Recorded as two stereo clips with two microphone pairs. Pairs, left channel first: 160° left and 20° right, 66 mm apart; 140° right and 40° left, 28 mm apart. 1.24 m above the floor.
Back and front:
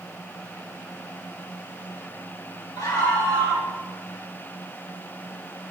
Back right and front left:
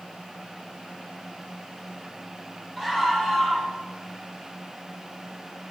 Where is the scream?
145° left, 8.5 m.